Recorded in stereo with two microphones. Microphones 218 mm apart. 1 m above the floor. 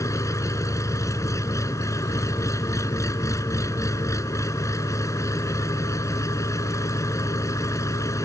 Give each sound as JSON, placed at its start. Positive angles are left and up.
{"t": 0.0, "sound": "an engine running", "side_deg": 15}